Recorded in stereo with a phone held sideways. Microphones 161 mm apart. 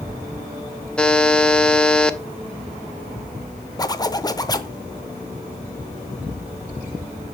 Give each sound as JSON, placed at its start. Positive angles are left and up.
{"t": 1.0, "sound": "a buzzer", "side_deg": 5, "distance_m": 0.5}
{"t": 3.8, "sound": "a zipper", "side_deg": 25, "distance_m": 0.7}